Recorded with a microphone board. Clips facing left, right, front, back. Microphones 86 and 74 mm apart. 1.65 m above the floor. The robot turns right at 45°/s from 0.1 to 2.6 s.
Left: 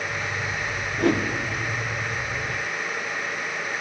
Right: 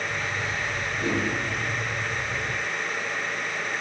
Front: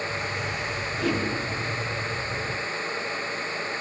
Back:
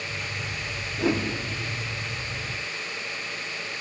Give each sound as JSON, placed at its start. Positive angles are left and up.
{"t": 1.0, "sound": "a whoosh", "azimuth_deg": 110, "distance_m": 0.5}